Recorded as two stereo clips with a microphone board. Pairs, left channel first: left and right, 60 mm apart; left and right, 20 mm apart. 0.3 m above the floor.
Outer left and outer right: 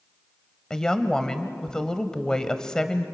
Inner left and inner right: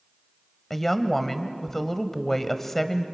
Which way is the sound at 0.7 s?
15° left (ahead or behind).